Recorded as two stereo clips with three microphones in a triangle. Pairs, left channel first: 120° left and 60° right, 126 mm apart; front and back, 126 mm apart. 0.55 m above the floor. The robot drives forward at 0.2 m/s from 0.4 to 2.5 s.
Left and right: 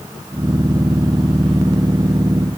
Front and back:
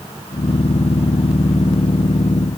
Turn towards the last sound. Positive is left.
No sound to turn to.